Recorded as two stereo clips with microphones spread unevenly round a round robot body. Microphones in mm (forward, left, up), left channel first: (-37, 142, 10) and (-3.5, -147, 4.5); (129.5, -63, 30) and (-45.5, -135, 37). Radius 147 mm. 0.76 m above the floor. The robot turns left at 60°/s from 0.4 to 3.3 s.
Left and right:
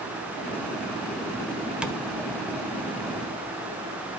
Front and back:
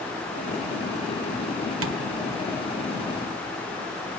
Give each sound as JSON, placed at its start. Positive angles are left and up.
{"t": 1.8, "sound": "tapping", "azimuth_deg": -170, "distance_m": 1.5}